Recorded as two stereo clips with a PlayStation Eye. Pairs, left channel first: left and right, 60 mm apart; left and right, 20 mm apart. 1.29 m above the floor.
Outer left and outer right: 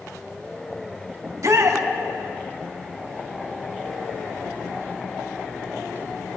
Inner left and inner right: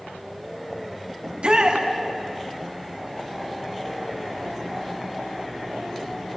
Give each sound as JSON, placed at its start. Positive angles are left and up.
{"t": 1.2, "sound": "a shout", "side_deg": -60, "distance_m": 3.0}